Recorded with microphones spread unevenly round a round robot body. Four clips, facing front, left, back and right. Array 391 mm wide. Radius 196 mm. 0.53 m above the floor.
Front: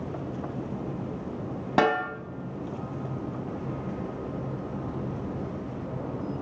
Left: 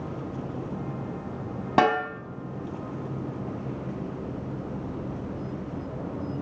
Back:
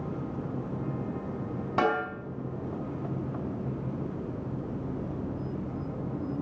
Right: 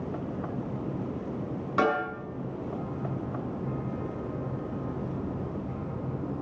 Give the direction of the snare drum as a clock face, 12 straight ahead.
10 o'clock.